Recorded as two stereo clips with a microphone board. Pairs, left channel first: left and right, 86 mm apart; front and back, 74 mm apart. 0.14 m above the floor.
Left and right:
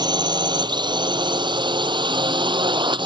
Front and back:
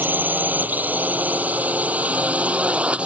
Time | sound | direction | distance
0.0 | a drone | 115° right | ?